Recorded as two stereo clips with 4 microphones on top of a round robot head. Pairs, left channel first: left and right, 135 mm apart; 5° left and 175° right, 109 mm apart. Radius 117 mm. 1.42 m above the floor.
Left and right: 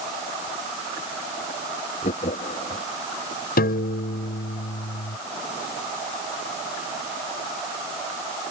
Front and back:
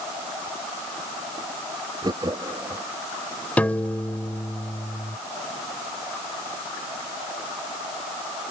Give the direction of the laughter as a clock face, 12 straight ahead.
7 o'clock.